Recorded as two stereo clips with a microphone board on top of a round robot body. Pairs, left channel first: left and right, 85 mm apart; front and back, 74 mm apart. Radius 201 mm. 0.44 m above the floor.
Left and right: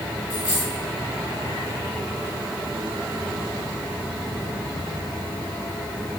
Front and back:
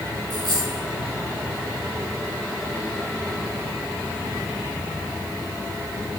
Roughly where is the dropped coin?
Behind left.